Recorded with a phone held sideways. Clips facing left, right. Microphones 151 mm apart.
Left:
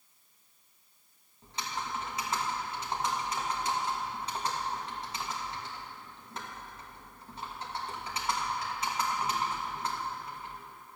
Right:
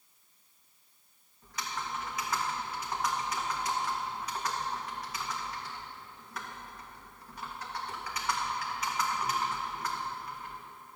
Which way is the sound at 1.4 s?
25° left (ahead or behind).